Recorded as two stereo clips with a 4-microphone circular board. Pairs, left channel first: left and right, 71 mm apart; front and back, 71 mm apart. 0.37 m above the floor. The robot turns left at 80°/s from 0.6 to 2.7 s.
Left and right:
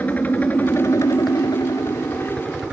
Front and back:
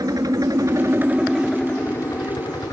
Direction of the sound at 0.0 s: 155° left.